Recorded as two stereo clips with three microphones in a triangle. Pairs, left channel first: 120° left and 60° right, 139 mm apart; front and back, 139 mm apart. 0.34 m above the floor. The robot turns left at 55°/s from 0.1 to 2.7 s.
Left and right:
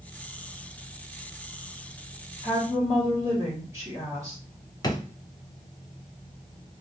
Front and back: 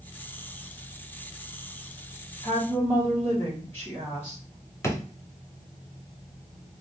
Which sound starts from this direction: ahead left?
A drawer, at 4.8 s.